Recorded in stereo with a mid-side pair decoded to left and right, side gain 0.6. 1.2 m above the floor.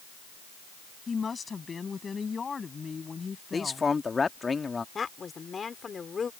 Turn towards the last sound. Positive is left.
turn(degrees=30)